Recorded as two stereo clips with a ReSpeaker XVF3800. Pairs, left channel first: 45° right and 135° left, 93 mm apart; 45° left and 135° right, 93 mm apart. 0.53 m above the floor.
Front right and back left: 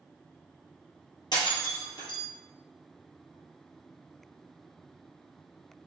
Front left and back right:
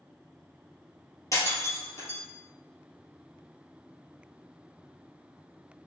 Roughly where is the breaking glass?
Ahead.